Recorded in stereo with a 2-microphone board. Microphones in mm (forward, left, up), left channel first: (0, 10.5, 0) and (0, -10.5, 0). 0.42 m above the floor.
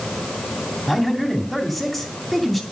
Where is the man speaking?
15° left (ahead or behind), 2.5 m.